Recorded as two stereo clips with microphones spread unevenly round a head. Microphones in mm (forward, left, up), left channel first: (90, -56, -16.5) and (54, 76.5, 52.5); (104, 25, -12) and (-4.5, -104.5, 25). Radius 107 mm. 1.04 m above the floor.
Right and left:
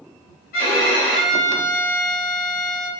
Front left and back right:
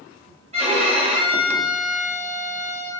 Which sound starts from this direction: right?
A violin, at 0.5 s.